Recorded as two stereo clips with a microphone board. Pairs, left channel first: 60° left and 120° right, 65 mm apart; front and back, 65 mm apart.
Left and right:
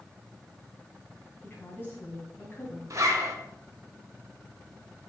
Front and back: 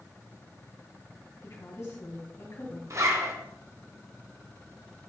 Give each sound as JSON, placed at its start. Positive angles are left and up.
{"t": 1.4, "sound": "a woman speaking", "azimuth_deg": 15, "distance_m": 2.0}
{"t": 2.9, "sound": "a zipper", "azimuth_deg": -155, "distance_m": 1.5}